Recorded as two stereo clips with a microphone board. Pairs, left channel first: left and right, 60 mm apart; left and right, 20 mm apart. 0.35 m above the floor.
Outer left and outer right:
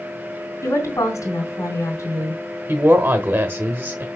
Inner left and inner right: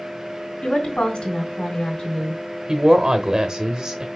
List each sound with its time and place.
0.6 s a woman speaking: 65° left (ahead or behind), 2.5 m
2.7 s a woman speaking: 35° right (ahead or behind), 0.9 m